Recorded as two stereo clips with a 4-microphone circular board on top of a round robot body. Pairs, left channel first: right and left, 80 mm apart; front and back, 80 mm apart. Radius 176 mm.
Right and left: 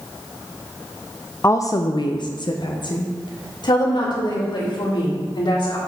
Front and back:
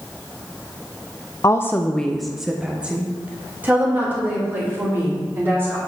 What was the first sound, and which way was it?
A woman speaking, 40° right.